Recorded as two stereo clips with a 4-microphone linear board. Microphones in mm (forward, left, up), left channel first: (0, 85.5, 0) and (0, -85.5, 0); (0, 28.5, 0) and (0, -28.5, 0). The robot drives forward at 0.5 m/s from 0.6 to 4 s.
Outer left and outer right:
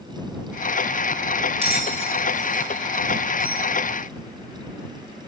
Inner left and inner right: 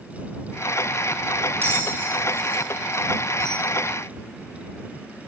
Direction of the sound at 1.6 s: 35° right (ahead or behind).